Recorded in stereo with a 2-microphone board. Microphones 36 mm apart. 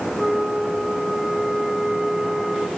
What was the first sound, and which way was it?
A flute, 15° right (ahead or behind).